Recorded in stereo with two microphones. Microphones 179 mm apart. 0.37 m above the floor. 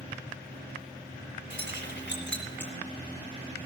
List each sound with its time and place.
1.5 s keys jangling: 80° left, 4.5 m